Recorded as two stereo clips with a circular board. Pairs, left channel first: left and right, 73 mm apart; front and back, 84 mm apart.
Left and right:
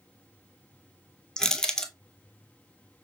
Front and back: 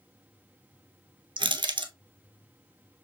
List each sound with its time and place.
1.4 s crushing: 170° left, 0.6 m